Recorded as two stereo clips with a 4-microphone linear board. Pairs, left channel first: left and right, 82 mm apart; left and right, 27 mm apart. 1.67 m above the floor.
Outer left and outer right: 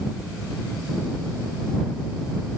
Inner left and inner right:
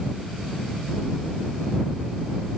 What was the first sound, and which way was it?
Only background noise.